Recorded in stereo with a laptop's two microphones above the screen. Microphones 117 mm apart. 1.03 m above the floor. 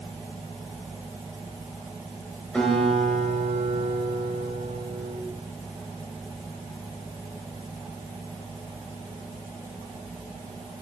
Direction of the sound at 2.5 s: 10° left (ahead or behind).